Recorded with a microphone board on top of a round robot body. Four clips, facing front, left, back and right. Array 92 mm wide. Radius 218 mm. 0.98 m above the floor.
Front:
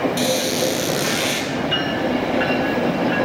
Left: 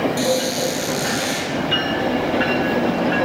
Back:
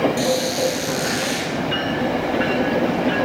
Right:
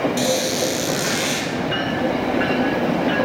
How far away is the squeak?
About 1.7 m.